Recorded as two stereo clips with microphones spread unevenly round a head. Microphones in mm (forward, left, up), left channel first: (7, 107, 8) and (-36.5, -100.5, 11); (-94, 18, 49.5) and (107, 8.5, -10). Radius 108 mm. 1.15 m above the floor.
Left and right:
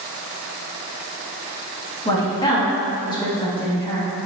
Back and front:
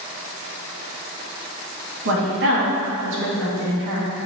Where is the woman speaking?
5° left, 1.9 m.